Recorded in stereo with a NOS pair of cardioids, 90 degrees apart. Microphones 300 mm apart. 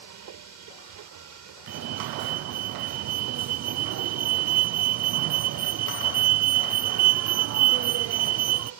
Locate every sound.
0.0 s a machine running: 70° right
1.7 s a fire alarm: 65° right